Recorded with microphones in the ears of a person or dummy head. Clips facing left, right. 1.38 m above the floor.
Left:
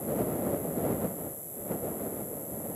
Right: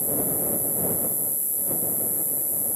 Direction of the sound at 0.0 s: 60° right (ahead or behind).